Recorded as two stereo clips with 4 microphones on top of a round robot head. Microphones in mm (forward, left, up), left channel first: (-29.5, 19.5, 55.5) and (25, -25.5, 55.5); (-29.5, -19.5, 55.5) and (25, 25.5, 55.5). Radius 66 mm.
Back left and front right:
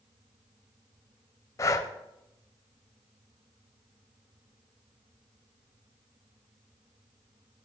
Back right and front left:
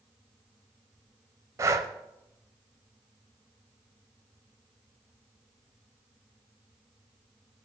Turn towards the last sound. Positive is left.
turn(degrees=90)